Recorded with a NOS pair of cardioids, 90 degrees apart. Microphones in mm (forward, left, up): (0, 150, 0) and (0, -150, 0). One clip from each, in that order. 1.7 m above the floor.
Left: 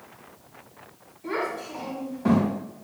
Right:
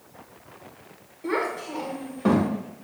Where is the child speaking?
30° right, 1.5 m.